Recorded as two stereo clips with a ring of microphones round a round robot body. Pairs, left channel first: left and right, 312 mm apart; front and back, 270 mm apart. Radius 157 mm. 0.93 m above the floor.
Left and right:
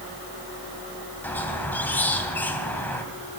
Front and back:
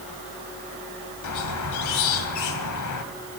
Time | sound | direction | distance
1.2 | a squeak | 5° left | 2 m